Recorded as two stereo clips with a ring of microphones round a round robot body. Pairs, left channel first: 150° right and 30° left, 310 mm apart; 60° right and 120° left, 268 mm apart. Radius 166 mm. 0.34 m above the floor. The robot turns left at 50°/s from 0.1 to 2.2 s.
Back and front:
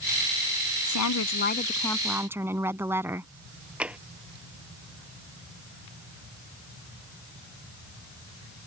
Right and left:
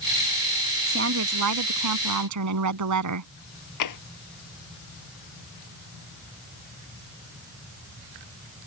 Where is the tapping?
55° right.